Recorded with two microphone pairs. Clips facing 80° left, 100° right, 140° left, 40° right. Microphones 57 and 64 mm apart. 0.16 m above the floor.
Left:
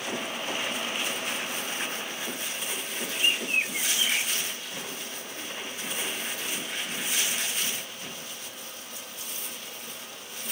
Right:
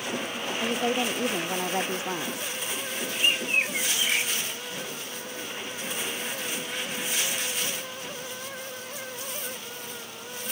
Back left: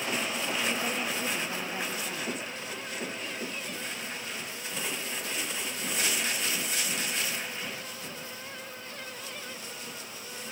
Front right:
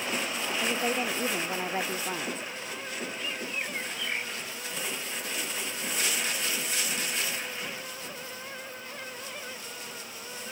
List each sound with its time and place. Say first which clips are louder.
0.6 s a woman speaking: right 5 dB, front right 5 dB; 100° right
3.1 s a bird: right 1 dB, front right 2 dB; 25° right